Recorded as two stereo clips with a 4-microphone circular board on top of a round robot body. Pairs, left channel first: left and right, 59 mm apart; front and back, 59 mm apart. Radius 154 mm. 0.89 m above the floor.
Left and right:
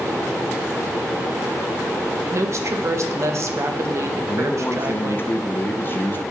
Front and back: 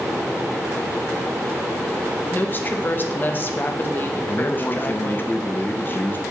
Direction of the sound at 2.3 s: 55° right.